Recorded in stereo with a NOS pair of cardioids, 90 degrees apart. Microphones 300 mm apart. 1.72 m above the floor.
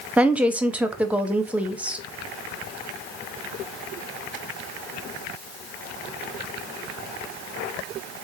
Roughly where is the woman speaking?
Ahead.